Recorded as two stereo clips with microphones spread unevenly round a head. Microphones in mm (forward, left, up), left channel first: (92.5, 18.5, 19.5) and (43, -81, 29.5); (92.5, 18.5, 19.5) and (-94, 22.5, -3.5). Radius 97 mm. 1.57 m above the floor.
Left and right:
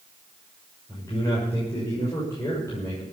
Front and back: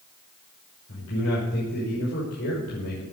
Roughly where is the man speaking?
Ahead.